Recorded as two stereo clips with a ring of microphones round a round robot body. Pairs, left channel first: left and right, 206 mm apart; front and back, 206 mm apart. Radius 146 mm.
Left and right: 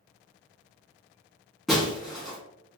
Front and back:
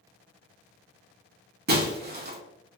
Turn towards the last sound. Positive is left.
turn(degrees=180)